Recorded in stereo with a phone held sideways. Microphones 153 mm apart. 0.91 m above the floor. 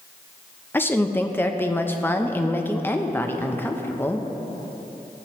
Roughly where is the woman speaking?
Centre.